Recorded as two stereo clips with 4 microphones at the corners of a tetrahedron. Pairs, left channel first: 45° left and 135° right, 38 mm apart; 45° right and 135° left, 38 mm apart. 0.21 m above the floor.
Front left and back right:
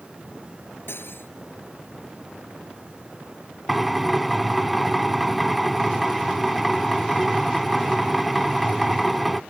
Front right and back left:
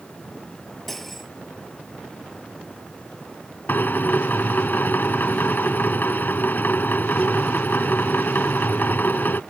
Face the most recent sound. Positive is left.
turn(degrees=-45)